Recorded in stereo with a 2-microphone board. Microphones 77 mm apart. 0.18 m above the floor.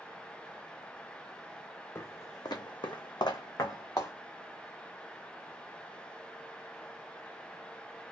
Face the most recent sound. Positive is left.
turn(degrees=40)  # may be behind; listen again after turning